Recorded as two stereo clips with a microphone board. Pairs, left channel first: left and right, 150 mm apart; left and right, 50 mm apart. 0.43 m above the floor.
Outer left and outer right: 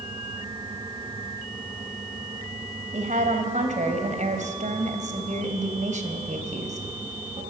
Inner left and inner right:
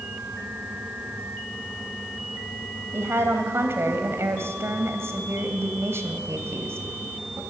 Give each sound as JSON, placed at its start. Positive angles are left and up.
{"t": 2.9, "sound": "a woman speaking", "side_deg": -55, "distance_m": 3.0}